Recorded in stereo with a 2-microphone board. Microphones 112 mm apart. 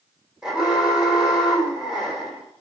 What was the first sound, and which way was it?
An alarm, 10° right (ahead or behind).